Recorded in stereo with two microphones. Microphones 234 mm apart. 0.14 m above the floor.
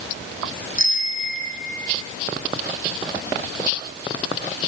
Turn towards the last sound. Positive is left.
turn(degrees=-55)  # may be behind; listen again after turning